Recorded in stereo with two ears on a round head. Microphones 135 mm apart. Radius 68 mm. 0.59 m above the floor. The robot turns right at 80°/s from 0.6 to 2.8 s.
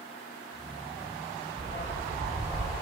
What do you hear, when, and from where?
1.6 s a dog barking: 75° left, 7 m; by 2.7 s 165° left, 7 m